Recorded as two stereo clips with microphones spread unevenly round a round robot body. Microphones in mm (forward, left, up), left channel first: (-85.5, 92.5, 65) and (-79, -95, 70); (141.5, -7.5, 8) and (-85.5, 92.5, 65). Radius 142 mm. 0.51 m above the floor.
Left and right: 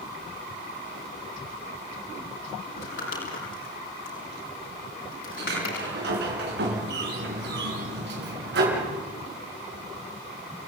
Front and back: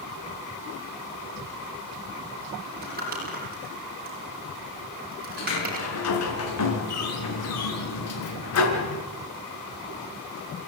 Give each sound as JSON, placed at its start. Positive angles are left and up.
{"t": 2.7, "sound": "crumpling", "azimuth_deg": 105, "distance_m": 7.5}
{"t": 5.4, "sound": "a sliding door", "azimuth_deg": -50, "distance_m": 4.5}